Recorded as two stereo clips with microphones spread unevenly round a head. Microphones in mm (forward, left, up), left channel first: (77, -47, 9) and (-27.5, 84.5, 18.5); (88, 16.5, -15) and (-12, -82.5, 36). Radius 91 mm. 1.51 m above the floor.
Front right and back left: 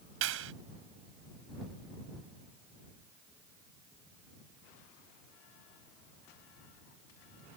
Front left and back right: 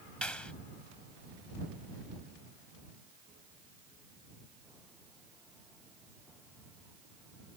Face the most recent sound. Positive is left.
turn(degrees=135)